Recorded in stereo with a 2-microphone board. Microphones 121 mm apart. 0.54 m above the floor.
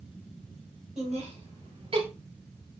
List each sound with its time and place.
1.0 s laughter: 65° right (ahead or behind), 2.5 m; by 2.1 s 50° right (ahead or behind), 2 m